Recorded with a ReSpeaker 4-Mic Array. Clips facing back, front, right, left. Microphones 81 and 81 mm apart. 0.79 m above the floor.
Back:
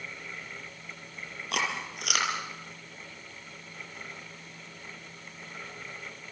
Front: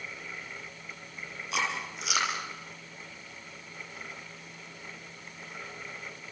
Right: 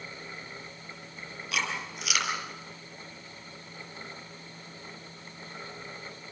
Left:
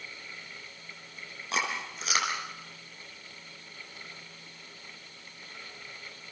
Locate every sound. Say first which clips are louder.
1.5 s chewing: even, left 1 dB; 150° left, 5 m